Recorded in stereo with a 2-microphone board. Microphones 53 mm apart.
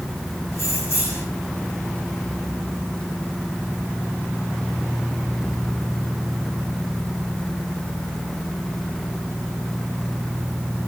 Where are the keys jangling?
50° left (ahead or behind), 4.5 m.